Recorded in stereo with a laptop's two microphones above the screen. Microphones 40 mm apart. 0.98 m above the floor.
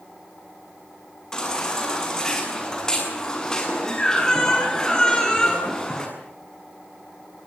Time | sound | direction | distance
1.3 | a baby crying | 15° left (ahead or behind) | 7 m